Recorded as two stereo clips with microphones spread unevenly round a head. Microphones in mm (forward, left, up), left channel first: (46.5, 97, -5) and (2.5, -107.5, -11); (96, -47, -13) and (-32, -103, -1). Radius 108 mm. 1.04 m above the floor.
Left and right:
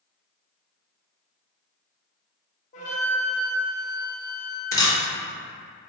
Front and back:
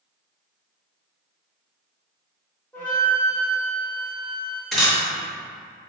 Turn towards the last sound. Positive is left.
turn(degrees=125)